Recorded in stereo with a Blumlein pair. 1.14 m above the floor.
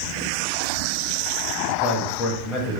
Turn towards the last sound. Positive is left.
turn(degrees=30)